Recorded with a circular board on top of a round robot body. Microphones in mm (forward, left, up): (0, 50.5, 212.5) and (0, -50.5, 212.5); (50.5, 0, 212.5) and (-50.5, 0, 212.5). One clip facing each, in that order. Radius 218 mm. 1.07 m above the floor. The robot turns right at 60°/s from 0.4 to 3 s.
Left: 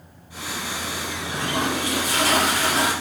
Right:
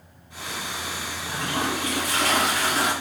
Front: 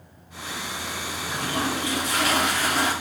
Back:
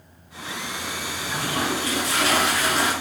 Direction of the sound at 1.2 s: 25° right.